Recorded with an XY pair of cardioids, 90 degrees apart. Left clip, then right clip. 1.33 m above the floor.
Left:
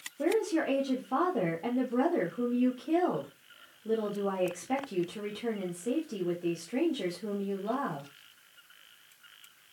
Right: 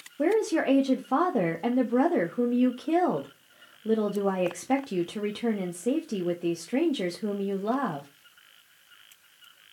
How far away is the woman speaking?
About 0.6 m.